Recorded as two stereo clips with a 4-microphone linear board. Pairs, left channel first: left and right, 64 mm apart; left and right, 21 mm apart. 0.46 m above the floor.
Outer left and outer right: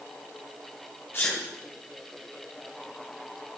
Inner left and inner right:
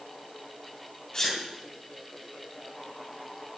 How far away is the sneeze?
About 3 m.